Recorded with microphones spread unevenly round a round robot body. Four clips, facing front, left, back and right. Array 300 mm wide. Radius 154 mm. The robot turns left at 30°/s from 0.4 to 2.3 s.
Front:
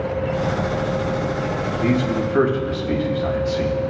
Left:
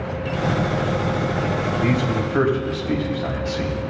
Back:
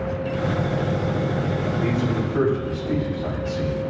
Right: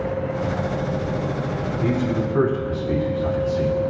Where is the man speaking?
70° left, 3.5 m; by 3.8 s 55° left, 3.5 m.